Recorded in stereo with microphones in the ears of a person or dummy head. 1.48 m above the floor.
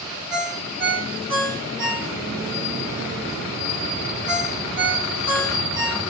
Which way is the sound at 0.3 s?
65° right (ahead or behind).